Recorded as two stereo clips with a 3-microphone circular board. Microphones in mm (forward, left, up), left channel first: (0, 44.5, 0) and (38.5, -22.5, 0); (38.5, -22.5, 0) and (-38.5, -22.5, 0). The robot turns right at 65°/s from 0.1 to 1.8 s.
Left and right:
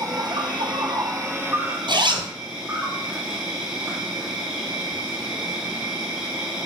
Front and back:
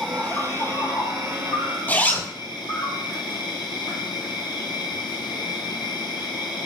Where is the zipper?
70° right, 2 m.